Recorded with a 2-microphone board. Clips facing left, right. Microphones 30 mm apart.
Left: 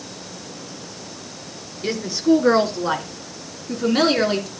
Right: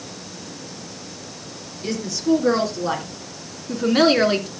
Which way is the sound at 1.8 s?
30° left (ahead or behind).